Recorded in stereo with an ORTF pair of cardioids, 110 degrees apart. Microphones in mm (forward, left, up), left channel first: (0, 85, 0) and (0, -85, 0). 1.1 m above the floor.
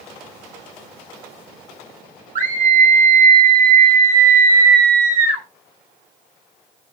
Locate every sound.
2.4 s a scream: 55° right, 2.5 m